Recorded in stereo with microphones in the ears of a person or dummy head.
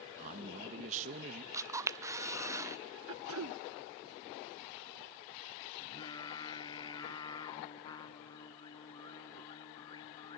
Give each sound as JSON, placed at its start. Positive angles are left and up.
{"t": 0.2, "sound": "a man speaking", "side_deg": -35, "distance_m": 1.6}
{"t": 1.5, "sound": "a camera shutter", "side_deg": -20, "distance_m": 0.5}
{"t": 3.1, "sound": "throat clearing", "side_deg": -70, "distance_m": 0.6}
{"t": 5.8, "sound": "singing", "side_deg": 25, "distance_m": 1.1}